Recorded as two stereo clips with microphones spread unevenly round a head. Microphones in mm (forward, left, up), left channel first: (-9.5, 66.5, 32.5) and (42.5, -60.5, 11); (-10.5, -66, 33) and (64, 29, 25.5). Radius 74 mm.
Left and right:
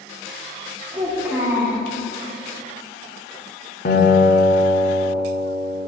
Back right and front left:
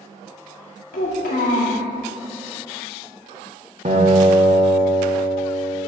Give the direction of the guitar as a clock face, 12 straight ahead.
9 o'clock.